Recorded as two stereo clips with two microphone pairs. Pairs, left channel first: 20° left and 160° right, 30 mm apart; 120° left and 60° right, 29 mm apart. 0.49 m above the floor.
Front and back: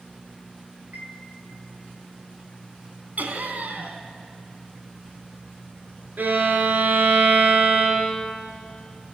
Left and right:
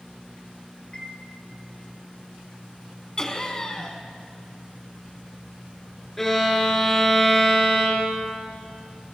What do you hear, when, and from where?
0.9 s a chime: 175° right, 3 m
3.2 s laughter: 175° right, 4 m
6.2 s a violin: 165° right, 5 m